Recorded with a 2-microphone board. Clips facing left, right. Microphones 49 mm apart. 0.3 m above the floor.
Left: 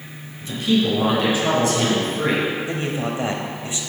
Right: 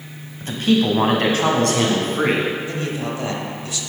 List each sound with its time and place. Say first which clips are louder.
0.4 s a man speaking: right 2 dB; 50° right (ahead or behind), 1.4 m; by 2.5 s 60° right (ahead or behind), 2.5 m
2.7 s a man speaking: left 1 dB; 25° left (ahead or behind), 1.2 m